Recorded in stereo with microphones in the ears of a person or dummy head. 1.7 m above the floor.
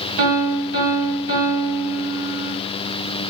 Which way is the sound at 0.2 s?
65° right (ahead or behind).